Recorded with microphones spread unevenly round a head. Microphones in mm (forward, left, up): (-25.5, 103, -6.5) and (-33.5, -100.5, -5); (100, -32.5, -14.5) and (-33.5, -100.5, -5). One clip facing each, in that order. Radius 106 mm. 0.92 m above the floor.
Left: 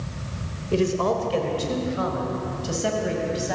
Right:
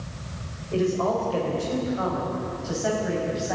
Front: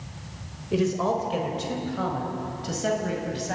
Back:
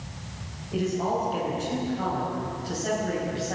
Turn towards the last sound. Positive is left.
turn(degrees=35)